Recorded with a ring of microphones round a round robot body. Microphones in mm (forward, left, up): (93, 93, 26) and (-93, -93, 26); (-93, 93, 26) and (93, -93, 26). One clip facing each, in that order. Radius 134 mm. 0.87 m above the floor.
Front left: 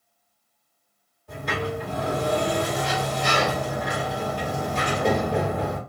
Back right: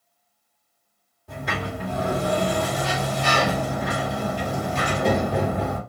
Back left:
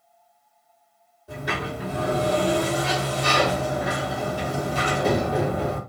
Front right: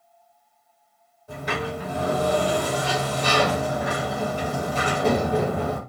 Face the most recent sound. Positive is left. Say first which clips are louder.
# front left 2 dB, front right 1 dB
turn(degrees=-145)